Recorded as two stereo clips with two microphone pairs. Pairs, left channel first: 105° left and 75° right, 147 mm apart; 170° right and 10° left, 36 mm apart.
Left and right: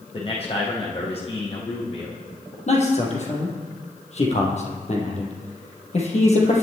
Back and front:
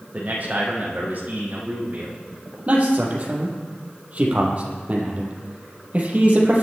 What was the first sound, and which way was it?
A man speaking, 60° left.